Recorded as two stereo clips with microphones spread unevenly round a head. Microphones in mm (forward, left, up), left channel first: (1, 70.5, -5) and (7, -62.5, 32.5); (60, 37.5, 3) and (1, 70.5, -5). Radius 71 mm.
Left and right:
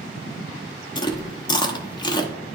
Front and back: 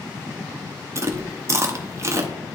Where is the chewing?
125° left, 0.8 m.